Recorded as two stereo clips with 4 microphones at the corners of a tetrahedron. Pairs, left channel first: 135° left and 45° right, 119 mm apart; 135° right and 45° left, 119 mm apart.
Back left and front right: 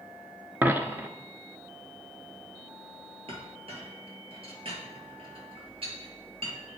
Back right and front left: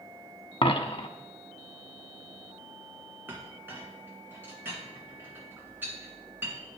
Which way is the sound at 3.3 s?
25° right.